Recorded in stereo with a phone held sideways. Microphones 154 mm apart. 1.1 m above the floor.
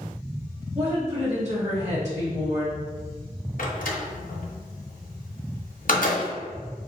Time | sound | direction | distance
0.8 | a woman speaking | 50° right (ahead or behind) | 1.9 m
3.6 | a door slam | 60° left (ahead or behind) | 0.7 m